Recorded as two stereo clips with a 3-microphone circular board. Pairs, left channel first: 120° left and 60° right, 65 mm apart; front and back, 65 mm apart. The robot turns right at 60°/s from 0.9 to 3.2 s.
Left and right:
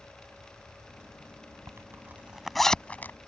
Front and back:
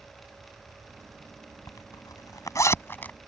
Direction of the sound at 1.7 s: 20° right.